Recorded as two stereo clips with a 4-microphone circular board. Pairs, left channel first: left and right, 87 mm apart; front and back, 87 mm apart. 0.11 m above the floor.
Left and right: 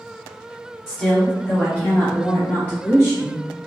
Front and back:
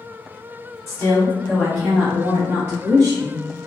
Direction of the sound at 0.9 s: 15° left.